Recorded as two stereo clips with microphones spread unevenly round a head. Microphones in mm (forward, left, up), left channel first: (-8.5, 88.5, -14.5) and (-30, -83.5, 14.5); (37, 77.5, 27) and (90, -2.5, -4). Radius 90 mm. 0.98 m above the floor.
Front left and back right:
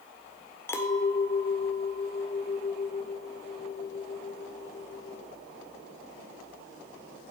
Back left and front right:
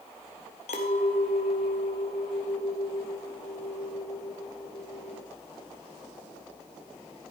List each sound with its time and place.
0.7 s a clink: 160° left, 1.6 m